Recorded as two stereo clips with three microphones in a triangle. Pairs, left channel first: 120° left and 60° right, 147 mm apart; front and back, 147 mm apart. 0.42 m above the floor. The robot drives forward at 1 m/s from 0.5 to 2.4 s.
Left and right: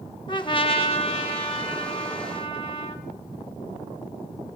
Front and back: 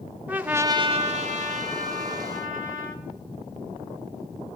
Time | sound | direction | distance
0.3 | a trumpet | 110° left | 0.6 m